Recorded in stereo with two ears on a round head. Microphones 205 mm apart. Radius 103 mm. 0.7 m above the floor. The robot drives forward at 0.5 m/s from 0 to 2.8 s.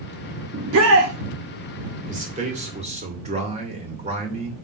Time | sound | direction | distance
0.5 | a shout | 65° right (ahead or behind) | 1.2 m
2.1 | a man speaking | 35° right (ahead or behind) | 2.5 m